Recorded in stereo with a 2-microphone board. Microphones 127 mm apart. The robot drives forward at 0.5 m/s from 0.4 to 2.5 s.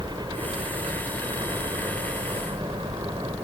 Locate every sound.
0.0 s a helicopter: 35° right (ahead or behind)